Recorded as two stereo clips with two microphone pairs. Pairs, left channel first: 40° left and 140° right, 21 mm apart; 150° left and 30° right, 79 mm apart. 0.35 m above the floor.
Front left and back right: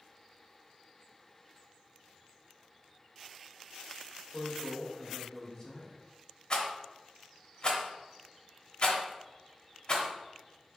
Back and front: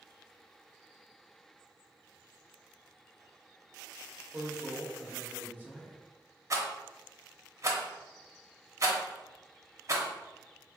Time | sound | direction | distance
4.3 | a man speaking | 10° left | 1.2 m
6.5 | a rattle | 5° left | 1.0 m